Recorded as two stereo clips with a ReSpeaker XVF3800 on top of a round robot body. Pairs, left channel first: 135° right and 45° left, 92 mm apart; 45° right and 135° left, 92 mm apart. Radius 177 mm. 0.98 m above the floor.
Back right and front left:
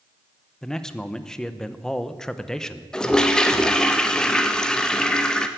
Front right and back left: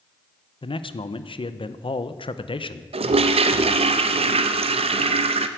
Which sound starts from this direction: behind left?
A toilet flushing, at 2.9 s.